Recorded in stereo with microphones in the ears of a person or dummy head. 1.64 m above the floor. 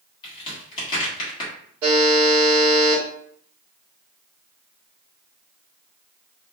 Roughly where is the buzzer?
Right.